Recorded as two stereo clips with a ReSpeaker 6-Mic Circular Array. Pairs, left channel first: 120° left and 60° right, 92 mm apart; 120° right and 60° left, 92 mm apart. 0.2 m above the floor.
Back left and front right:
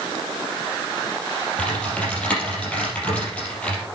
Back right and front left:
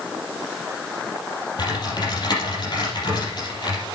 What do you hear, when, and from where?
1.6 s typing on a keyboard: 160° right, 4.5 m